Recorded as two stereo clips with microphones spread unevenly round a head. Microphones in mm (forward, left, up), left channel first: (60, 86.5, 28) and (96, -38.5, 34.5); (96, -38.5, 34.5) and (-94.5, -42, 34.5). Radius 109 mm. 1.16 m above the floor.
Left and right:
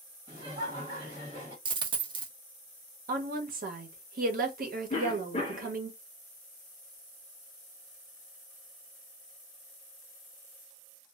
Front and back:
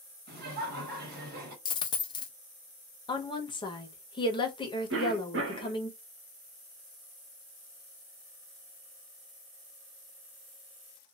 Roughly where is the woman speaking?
Ahead right.